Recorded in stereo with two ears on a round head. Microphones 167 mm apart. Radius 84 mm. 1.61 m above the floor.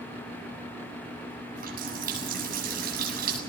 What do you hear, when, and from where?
1.6 s a running tap: 50° right (ahead or behind), 7.5 m